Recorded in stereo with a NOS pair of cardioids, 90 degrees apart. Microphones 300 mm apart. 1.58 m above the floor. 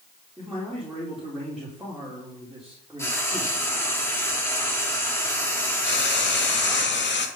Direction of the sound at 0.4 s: Straight ahead.